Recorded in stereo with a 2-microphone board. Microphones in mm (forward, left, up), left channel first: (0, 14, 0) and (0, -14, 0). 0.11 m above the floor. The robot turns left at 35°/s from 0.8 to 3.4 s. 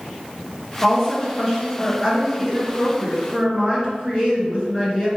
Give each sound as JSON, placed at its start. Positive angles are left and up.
{"t": 0.8, "sound": "a woman speaking", "side_deg": 10, "distance_m": 1.8}